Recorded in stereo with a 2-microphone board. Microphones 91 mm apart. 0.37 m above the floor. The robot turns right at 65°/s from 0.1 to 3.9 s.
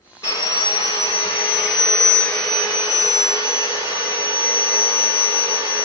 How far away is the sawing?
About 4 m.